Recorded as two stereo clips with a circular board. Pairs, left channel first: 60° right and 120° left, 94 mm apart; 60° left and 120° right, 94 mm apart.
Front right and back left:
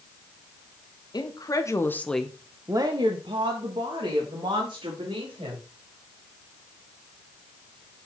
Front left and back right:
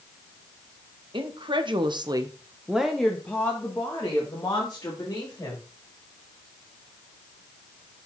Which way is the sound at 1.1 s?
100° right.